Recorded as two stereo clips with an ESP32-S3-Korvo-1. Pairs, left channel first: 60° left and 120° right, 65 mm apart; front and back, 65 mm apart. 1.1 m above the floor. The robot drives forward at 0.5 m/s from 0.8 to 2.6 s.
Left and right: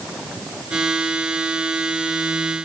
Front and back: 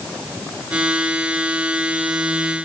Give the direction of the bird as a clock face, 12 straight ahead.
I don't hear a bird.